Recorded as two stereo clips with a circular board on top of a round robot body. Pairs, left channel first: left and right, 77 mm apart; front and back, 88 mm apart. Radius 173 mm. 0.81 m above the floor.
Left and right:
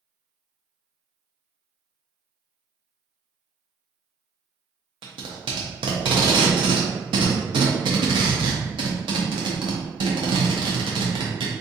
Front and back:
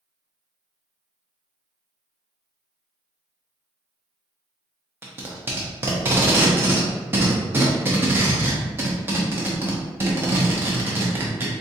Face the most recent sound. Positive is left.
turn(degrees=-110)